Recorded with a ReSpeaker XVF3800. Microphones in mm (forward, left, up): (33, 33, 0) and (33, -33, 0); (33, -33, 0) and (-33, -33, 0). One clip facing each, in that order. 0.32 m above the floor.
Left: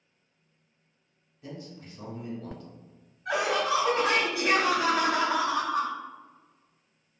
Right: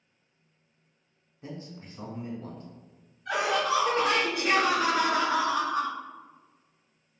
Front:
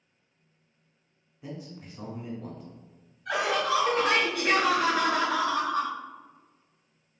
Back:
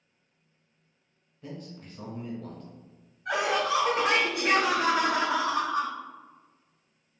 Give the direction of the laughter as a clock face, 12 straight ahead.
8 o'clock.